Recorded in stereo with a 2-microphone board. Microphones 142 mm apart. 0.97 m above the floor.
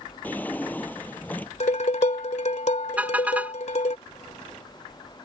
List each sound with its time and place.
0.2 s a drawer: 15° left (ahead or behind)
1.6 s dishes clattering: 60° left (ahead or behind)
3.0 s a car horn: 10° right (ahead or behind)